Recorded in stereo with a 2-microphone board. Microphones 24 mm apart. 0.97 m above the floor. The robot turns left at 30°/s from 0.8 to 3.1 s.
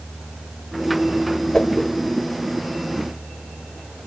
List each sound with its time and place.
1.5 s a whoosh: 25° left (ahead or behind), 0.8 m; by 1.9 s 20° left (ahead or behind), 0.8 m